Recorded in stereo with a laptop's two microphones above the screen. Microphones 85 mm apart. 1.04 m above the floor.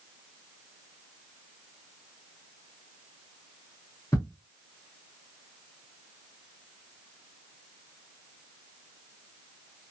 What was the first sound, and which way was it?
Ticking, 40° left (ahead or behind).